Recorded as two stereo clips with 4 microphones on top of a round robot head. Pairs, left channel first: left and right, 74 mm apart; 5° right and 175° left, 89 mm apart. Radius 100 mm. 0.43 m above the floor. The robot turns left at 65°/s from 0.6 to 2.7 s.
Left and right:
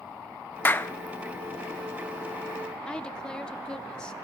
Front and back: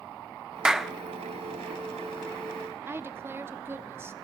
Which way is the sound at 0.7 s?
105° left.